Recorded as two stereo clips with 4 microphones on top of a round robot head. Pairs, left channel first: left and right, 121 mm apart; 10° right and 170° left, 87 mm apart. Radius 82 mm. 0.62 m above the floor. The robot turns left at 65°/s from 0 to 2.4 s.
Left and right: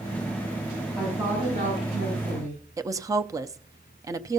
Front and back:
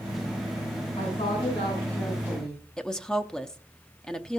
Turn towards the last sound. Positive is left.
turn(degrees=-80)